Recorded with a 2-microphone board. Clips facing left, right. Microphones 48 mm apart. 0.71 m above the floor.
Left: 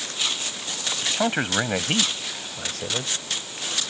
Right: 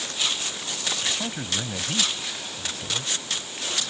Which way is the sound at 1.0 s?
65° left (ahead or behind).